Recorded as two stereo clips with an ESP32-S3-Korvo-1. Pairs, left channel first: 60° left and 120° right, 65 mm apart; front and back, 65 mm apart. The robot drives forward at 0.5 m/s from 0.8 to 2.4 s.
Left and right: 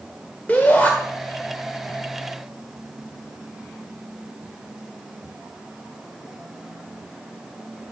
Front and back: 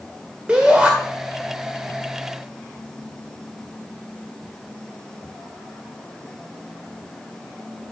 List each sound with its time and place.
0.5 s a shout: 115° left, 1.7 m; by 0.9 s 120° left, 1.7 m